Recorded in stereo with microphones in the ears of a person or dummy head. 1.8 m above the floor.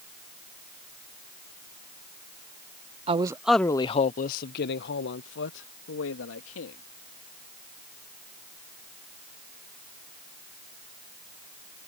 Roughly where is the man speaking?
Right.